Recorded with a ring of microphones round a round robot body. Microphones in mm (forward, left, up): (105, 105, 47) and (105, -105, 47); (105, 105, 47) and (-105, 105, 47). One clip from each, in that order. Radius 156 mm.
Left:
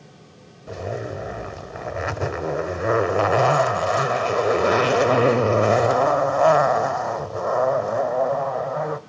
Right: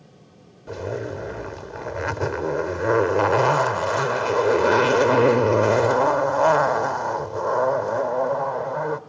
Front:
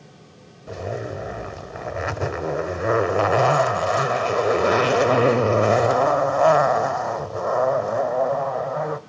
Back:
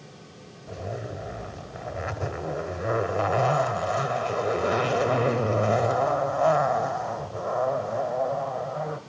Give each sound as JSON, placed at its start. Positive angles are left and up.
{"t": 0.7, "sound": "a zipper", "azimuth_deg": 10, "distance_m": 1.1}